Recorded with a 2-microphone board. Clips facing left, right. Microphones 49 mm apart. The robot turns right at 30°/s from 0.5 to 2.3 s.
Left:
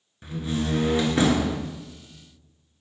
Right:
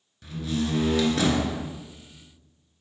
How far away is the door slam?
About 1.1 m.